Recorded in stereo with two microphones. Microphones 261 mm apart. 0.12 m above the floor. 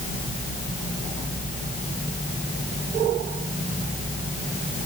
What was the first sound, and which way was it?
Only background noise.